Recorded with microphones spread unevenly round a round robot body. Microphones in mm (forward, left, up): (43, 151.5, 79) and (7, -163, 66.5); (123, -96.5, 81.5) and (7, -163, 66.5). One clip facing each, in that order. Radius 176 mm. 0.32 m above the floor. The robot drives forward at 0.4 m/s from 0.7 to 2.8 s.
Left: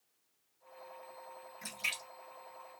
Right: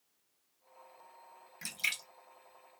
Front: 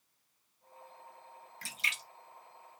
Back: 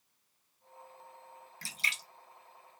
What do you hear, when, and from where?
1.6 s a splash: 125° right, 1.3 m; by 2.0 s 135° right, 1.4 m